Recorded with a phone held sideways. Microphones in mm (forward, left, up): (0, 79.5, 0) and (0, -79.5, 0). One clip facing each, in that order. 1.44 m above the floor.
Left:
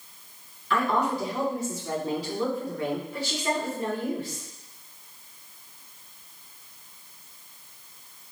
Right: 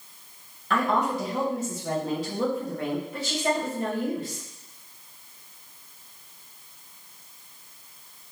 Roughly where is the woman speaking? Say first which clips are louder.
Even; right.